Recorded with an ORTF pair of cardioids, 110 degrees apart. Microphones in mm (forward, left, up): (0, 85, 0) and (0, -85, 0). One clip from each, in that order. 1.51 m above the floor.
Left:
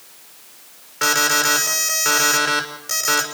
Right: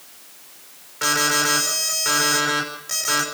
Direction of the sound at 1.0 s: 30° left.